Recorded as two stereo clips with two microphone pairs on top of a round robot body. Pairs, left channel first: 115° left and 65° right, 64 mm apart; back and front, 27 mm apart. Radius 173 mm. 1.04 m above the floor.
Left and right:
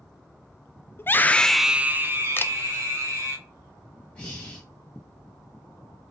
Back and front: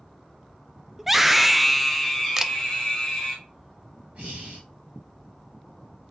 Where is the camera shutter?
75° left, 0.5 m.